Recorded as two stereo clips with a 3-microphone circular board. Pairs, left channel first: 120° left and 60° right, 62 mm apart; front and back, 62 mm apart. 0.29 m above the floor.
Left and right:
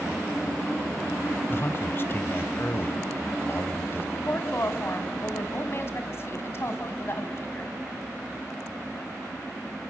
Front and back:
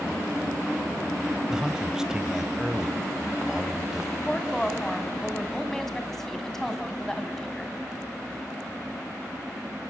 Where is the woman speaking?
85° left, 2.5 m.